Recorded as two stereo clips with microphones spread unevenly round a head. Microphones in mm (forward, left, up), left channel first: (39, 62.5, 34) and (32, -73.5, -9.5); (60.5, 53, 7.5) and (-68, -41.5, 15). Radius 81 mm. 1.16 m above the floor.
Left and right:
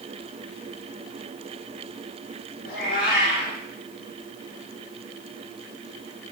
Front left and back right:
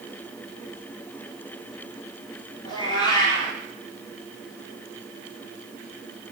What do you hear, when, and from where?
2.6 s a cat meowing: 100° left, 4.5 m